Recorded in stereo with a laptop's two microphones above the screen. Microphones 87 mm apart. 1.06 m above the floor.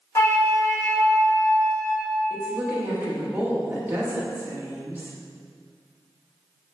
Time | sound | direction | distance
0.1 | a flute | 35° left (ahead or behind) | 1.2 m
2.3 | a woman speaking | 20° right (ahead or behind) | 1.2 m